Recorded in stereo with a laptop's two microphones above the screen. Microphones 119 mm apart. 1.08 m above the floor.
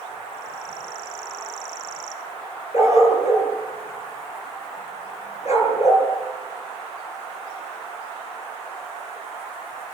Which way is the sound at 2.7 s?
65° left (ahead or behind).